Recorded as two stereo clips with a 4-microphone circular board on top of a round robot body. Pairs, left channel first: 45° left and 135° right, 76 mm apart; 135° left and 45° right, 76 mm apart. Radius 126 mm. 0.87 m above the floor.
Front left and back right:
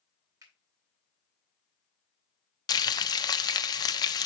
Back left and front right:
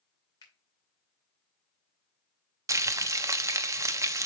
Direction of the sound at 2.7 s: 5° left.